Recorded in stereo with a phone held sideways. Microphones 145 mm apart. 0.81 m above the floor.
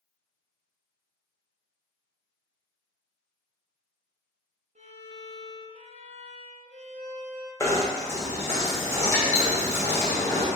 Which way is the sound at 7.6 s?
20° left (ahead or behind).